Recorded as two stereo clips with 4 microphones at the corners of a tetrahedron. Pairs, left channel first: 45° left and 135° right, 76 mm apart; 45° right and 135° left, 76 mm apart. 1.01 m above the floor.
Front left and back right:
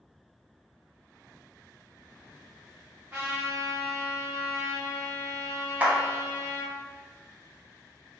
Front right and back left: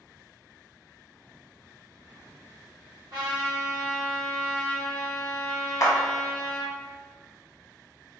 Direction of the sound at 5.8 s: 70° right.